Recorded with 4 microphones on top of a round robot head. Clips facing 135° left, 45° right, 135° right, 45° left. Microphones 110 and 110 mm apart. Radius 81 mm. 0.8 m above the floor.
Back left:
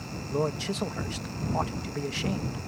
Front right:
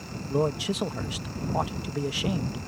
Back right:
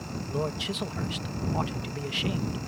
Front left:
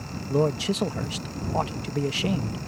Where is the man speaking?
25° left.